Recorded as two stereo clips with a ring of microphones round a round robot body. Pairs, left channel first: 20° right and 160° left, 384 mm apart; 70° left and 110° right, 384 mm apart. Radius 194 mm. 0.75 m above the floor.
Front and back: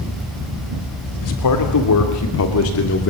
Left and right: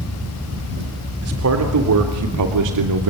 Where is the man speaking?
60° right, 3 m; by 3.1 s 80° right, 2.5 m.